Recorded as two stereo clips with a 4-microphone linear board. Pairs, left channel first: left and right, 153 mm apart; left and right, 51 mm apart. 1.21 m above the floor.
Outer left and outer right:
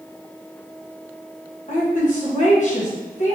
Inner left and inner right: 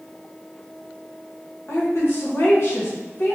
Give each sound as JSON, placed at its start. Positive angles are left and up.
{"t": 1.7, "sound": "a woman speaking", "side_deg": 50, "distance_m": 1.5}